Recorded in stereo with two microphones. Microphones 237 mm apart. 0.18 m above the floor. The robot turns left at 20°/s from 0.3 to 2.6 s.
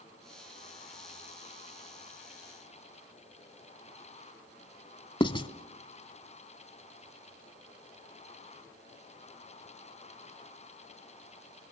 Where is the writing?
20° left (ahead or behind), 0.7 m.